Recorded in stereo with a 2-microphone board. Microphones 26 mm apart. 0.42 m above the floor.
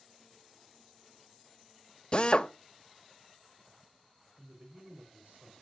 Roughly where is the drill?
Left.